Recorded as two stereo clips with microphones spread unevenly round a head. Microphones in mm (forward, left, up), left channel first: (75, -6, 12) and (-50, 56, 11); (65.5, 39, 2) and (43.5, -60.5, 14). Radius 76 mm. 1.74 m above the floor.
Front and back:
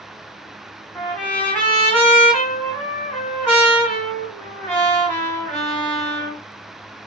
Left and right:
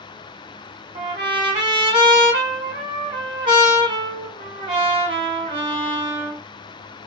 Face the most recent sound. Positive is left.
turn(degrees=-105)